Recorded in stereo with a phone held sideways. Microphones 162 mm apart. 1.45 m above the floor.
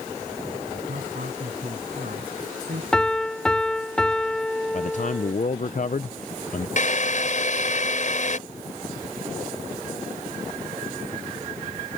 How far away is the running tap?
I don't hear a running tap.